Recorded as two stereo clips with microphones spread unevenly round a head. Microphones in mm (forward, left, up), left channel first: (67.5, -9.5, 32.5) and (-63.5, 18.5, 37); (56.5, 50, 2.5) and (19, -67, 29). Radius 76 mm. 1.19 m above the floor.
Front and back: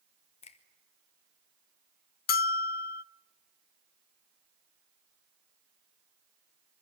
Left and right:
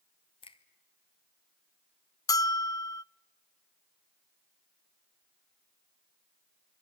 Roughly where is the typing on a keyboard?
I don't hear typing on a keyboard.